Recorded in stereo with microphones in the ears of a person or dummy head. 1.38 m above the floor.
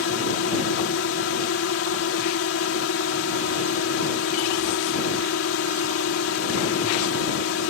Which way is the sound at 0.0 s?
60° left (ahead or behind).